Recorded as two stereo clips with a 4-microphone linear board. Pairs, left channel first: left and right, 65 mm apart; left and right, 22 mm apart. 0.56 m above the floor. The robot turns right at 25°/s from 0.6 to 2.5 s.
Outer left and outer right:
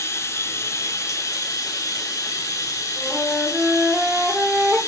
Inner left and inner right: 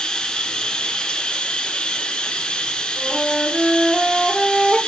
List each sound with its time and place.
0.0 s running water: 60° left, 0.8 m; by 4.9 s 105° left, 0.8 m
3.0 s a flute: 25° right (ahead or behind), 1.4 m